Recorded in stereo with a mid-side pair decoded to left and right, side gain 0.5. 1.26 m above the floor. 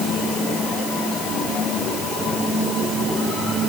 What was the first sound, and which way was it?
Only background noise.